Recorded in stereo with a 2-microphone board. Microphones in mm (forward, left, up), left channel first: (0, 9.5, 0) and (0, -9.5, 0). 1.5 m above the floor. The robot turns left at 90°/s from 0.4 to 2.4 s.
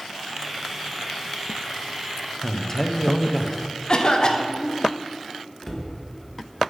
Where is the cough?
40° left (ahead or behind), 0.9 m.